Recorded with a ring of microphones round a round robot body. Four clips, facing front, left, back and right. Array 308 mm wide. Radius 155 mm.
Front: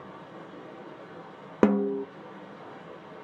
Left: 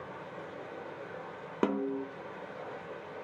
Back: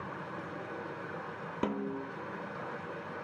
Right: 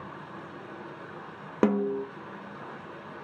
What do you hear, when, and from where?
0.0 s running water: 145° right, 3.5 m
1.6 s a snare drum: 20° right, 0.5 m